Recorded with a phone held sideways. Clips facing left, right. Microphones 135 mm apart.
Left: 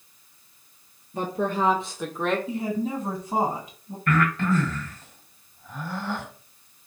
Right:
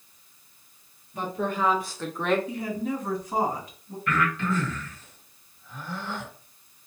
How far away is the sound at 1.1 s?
About 0.8 m.